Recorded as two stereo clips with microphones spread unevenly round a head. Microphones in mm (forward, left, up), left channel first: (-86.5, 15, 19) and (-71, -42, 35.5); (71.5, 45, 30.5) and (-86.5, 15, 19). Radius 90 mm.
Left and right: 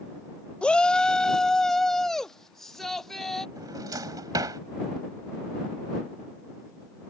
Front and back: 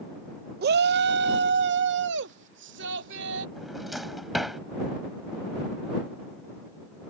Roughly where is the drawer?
Right.